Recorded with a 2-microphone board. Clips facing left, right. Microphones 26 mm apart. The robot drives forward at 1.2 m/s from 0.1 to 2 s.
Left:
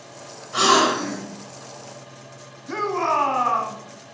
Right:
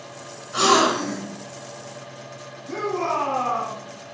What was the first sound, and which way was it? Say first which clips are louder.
A gasp: even; 5° left (ahead or behind).